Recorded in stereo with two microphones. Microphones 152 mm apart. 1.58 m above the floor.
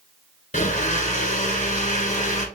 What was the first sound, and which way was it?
A blender, 60° left (ahead or behind).